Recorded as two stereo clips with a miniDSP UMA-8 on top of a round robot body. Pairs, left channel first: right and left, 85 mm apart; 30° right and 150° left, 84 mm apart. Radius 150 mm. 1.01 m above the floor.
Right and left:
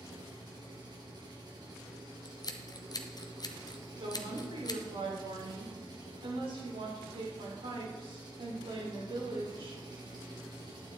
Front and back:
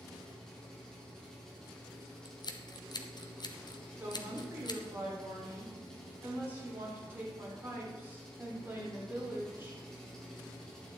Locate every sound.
0.0 s an engine running: 55° left, 3 m
2.2 s scissors: 55° right, 1.3 m
4.0 s a woman speaking: 85° left, 4 m